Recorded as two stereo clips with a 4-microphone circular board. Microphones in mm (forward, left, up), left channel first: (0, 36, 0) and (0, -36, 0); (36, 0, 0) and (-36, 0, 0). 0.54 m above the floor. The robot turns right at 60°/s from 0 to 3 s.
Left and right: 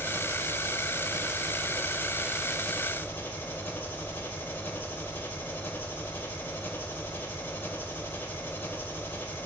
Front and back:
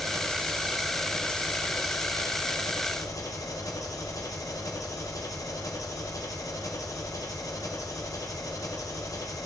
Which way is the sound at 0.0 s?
150° right.